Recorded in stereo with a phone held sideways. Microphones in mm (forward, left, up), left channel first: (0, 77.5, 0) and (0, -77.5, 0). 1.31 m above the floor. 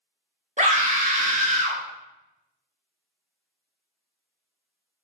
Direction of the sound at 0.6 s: 55° right (ahead or behind).